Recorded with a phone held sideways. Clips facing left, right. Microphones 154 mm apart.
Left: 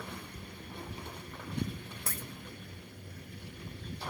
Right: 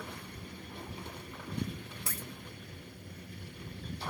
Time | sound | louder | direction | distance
2.1 | a dropped coin | left 1 dB | 55° left (ahead or behind) | 1.5 m